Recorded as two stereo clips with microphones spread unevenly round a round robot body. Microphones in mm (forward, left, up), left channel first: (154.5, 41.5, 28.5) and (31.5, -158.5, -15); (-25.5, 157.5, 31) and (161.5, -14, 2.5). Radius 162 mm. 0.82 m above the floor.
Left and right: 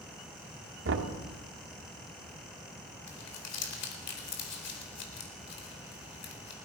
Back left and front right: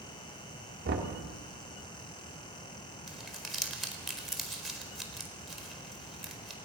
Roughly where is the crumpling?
Ahead left.